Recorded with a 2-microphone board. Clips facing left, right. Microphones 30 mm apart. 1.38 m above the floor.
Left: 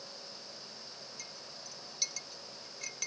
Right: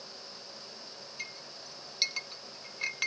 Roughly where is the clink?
Right.